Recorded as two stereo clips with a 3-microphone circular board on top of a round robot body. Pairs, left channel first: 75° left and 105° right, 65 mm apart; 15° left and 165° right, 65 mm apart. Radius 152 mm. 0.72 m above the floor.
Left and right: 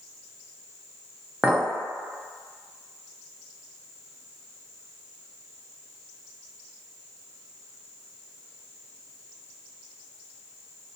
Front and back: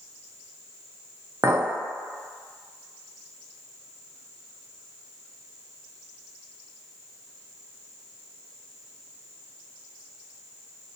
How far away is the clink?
About 0.6 m.